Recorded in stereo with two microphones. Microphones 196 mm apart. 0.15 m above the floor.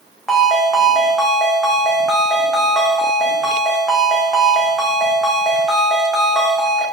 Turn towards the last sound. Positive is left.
turn(degrees=0)  # may be behind; listen again after turning